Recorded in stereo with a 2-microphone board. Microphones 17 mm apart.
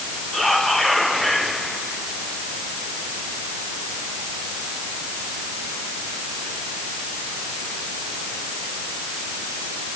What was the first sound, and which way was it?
Whispering, 60° left (ahead or behind).